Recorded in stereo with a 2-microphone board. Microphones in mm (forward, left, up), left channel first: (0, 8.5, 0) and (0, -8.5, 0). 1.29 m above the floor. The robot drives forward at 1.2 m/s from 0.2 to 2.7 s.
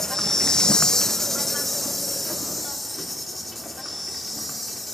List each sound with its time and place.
0.0 s an insect: 20° left (ahead or behind), 0.7 m; by 4.9 s 5° left (ahead or behind), 2.5 m